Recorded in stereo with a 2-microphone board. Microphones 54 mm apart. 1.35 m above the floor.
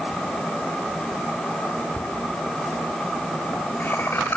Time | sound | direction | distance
2.0 | laughter | 20° right (ahead or behind) | 3 m